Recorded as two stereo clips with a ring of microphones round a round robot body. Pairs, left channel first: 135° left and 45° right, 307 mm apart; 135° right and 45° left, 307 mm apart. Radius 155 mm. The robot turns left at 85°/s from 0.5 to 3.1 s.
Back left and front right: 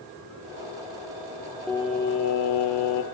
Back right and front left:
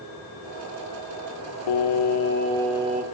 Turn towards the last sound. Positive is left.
turn(degrees=100)